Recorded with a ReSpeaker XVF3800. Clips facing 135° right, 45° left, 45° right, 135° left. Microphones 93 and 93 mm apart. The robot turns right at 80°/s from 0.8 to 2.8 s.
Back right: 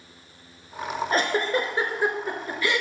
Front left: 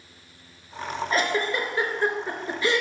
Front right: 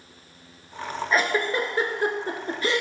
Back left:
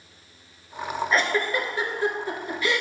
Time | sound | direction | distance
1.1 | a giggle | 130° right | 1.2 m